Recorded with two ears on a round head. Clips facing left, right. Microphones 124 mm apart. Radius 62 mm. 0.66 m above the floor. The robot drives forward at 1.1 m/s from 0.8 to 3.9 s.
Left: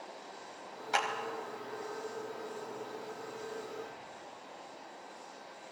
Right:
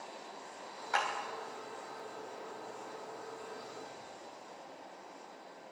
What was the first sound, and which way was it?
A clap, 25° left (ahead or behind).